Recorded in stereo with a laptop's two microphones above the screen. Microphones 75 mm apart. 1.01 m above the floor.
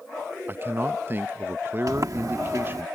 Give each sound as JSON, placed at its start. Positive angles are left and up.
{"t": 0.5, "sound": "a man speaking", "side_deg": -35}
{"t": 1.9, "sound": "a sliding door", "side_deg": -55}